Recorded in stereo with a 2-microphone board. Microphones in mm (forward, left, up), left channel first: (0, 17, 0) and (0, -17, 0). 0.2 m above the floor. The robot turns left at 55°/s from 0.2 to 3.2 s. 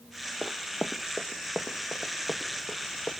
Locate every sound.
0.4 s running footsteps: 80° right, 0.8 m; by 3.1 s 55° left (ahead or behind), 3 m